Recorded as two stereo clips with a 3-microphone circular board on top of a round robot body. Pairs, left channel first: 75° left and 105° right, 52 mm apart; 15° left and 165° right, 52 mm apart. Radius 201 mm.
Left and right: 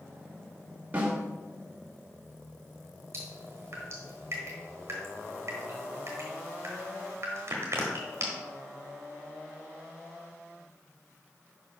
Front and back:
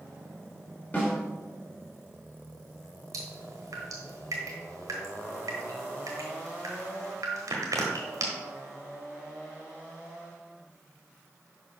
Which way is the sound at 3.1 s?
150° right.